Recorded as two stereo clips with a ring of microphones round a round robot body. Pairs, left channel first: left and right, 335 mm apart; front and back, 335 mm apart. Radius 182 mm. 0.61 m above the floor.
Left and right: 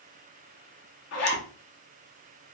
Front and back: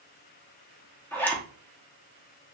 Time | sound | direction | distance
1.1 | a zipper | 80° left | 0.9 m